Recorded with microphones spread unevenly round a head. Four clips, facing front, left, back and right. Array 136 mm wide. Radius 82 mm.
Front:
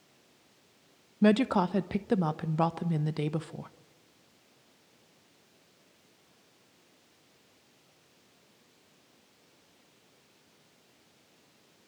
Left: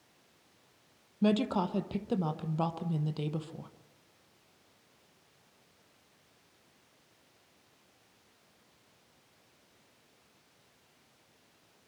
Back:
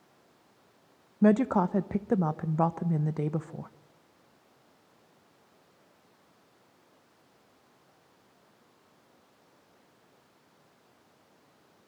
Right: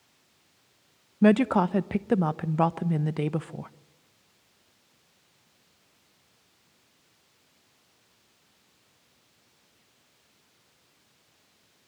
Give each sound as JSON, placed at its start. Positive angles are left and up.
{"t": 1.2, "sound": "a woman speaking", "azimuth_deg": -110, "distance_m": 0.8}